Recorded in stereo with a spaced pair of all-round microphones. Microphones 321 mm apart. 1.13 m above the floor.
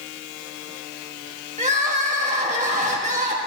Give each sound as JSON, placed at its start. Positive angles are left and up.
{"t": 1.6, "sound": "crying", "side_deg": -20, "distance_m": 1.6}